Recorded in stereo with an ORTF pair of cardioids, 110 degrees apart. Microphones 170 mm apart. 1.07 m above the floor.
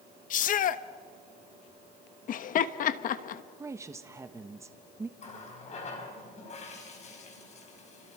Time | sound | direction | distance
0.3 | a shout | 60° left | 1.1 m
2.3 | laughter | 55° left | 1.3 m
3.6 | a woman speaking | 20° right | 1.0 m
5.2 | a running tap | 45° left | 4.5 m